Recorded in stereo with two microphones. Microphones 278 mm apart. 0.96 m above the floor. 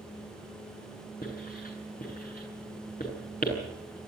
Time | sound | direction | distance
1.2 | writing | 35° left (ahead or behind) | 7.5 m